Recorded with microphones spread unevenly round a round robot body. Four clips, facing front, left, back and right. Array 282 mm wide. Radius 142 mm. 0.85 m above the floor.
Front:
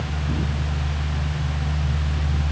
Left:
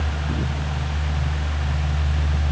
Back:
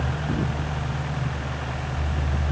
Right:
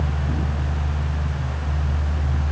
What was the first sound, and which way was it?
Only background noise.